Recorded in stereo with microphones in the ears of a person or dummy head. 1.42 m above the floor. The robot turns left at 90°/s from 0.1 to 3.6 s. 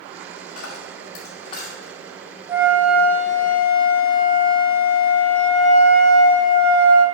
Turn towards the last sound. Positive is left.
turn(degrees=95)